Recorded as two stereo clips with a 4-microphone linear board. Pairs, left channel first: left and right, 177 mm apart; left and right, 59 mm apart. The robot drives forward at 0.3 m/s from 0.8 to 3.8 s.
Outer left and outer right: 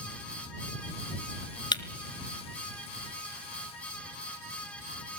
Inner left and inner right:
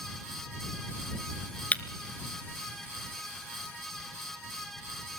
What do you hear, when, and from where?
1.7 s breaking glass: 25° left (ahead or behind), 0.9 m